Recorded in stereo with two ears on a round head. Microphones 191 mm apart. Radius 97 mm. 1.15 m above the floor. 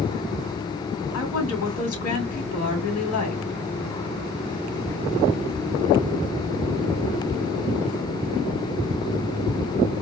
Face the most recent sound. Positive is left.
turn(degrees=80)